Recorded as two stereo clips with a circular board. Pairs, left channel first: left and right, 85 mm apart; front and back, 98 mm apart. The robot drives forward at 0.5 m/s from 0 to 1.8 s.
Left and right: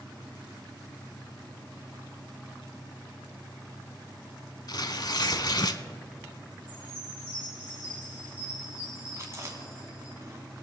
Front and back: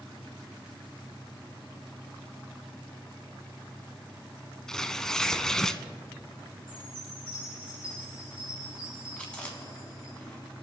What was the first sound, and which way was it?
Tearing paper, 85° left.